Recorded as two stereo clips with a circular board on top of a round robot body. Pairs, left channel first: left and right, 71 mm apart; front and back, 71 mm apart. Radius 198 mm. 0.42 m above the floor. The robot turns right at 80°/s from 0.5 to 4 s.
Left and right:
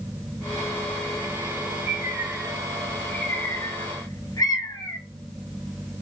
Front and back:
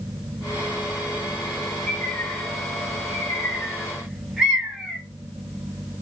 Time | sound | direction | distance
1.9 | a bird | 75° right | 1.2 m